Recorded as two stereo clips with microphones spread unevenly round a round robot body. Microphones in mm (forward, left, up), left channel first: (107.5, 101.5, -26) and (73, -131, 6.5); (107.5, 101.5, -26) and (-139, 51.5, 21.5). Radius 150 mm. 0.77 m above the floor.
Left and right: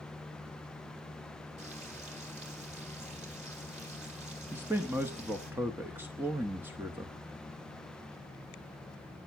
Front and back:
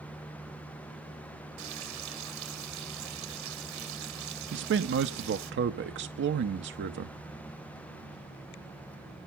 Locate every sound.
1.6 s frying: 170° right, 1.8 m
4.5 s a man speaking: 170° left, 0.6 m